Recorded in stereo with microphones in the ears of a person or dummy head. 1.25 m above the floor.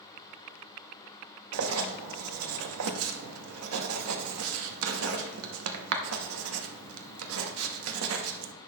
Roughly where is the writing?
Right.